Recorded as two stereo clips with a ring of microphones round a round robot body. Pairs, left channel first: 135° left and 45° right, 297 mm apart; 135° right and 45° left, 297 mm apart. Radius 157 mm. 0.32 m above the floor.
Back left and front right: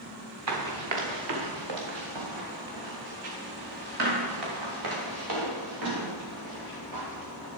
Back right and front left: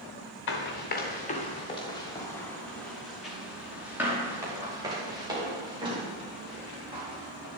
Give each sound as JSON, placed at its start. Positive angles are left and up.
{"t": 0.5, "sound": "running footsteps", "azimuth_deg": -85, "distance_m": 2.5}